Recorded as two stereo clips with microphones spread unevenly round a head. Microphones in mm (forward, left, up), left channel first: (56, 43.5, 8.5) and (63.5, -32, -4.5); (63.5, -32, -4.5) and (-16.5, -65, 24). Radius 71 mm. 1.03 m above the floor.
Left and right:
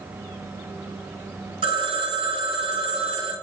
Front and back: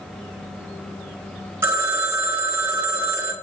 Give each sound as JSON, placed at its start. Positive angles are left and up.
{"t": 1.6, "sound": "a phone ringing", "azimuth_deg": -90, "distance_m": 0.8}